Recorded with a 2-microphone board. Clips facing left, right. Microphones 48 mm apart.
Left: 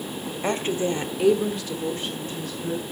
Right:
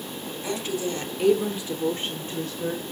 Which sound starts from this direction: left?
A woman speaking, at 0.4 s.